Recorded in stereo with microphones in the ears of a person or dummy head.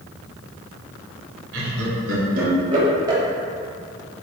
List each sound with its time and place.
1.5 s laughter: 80° right, 0.9 m; by 3.2 s 20° right (ahead or behind), 1.1 m